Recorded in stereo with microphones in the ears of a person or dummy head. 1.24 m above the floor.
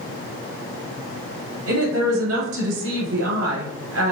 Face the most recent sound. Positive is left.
turn(degrees=-80)